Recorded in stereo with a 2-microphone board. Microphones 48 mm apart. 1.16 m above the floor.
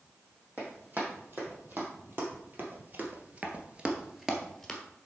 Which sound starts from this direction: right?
Running footsteps, at 0.6 s.